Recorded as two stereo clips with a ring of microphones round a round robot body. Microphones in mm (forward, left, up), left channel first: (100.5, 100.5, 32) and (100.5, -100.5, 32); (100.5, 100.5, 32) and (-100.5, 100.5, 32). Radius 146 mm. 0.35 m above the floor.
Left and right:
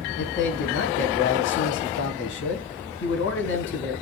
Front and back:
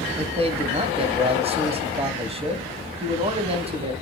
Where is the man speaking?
120° left, 2.5 m.